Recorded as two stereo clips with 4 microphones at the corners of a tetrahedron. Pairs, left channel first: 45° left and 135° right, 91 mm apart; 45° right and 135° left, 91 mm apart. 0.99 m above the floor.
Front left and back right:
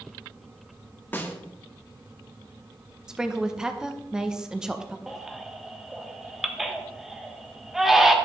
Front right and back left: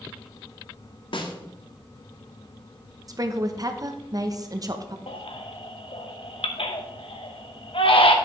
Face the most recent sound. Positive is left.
turn(degrees=-50)